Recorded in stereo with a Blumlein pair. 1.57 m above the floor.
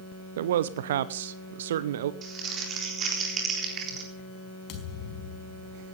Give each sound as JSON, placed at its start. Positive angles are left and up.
{"t": 0.4, "sound": "a man speaking", "azimuth_deg": -60, "distance_m": 0.7}
{"t": 2.2, "sound": "crumpling", "azimuth_deg": -25, "distance_m": 4.0}
{"t": 4.7, "sound": "a thud", "azimuth_deg": 35, "distance_m": 4.5}